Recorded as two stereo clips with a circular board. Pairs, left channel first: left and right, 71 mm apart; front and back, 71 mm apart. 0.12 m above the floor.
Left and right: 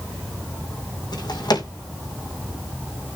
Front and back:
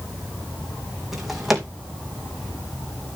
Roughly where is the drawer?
Left.